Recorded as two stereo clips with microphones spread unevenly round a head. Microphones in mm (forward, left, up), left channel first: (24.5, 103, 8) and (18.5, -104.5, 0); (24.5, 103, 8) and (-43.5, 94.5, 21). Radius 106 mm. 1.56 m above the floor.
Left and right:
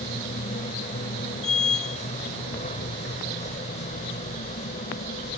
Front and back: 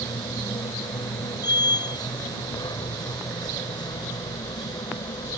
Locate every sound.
0.0 s a machine running: 30° left